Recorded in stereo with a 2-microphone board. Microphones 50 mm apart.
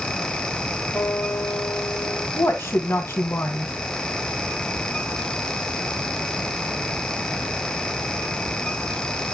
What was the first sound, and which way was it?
A guitar, 30° left (ahead or behind).